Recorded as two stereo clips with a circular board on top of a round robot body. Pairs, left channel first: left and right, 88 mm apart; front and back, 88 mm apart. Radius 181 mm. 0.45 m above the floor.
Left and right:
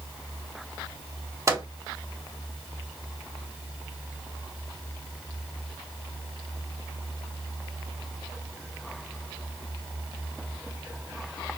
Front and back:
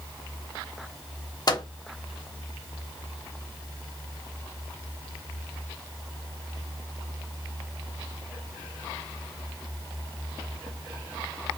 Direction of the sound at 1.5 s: 40° right.